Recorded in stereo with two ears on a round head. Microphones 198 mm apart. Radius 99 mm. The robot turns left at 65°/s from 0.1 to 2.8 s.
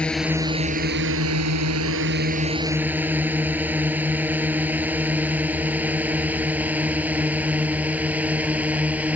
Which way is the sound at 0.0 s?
5° left (ahead or behind).